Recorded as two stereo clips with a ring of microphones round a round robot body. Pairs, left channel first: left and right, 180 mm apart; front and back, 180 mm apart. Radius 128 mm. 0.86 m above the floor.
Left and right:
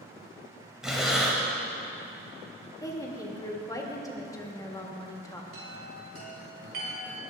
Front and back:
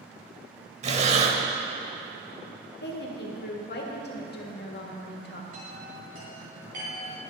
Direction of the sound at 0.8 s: 175° right.